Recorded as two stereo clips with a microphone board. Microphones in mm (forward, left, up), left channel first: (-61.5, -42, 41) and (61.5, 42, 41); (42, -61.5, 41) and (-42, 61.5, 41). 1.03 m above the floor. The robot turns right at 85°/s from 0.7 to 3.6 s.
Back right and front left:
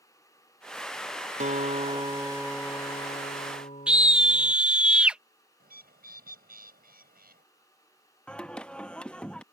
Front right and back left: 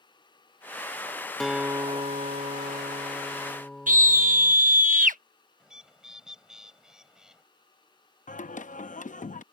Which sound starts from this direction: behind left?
A scream, at 3.9 s.